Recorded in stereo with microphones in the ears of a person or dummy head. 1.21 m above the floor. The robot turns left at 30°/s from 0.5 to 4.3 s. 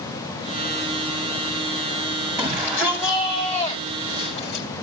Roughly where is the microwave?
No microwave in this recording.